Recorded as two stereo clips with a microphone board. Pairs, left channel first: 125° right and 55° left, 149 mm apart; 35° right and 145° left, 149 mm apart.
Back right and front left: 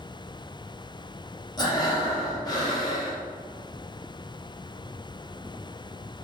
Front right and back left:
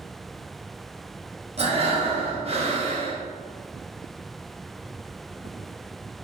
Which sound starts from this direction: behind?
Breathing, at 1.6 s.